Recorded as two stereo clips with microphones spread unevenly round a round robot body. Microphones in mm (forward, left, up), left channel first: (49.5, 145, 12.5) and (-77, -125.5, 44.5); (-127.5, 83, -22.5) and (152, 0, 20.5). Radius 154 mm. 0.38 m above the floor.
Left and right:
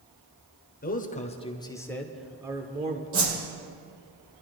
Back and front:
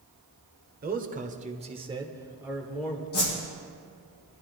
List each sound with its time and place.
0.8 s a man speaking: 35° left, 1.2 m; by 3.0 s 150° right, 1.0 m
3.1 s a whoosh: 135° right, 5 m